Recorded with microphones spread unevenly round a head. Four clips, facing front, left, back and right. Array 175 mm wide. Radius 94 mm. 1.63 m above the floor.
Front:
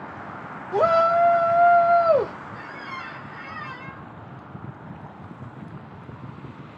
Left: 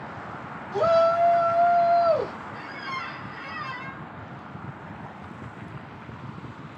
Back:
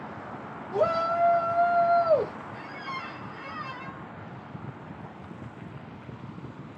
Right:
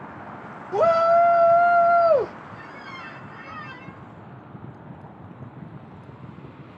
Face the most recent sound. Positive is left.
turn(degrees=180)